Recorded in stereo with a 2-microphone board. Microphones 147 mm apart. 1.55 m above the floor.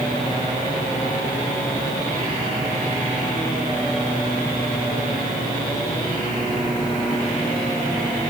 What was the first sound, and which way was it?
Only background noise.